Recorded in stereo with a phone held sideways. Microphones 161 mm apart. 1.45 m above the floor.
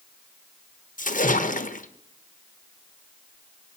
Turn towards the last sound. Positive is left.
turn(degrees=55)  # may be behind; listen again after turning